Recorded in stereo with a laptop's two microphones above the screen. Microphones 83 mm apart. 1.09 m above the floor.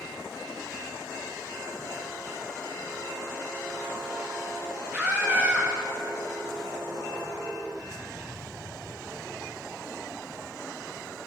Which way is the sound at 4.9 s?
25° right (ahead or behind).